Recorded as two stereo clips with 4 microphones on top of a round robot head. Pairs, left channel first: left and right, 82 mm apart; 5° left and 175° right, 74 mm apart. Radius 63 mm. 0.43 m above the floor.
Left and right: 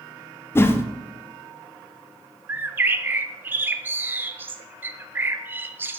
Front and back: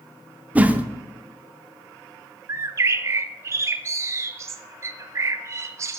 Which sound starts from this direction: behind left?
A whoosh, at 0.6 s.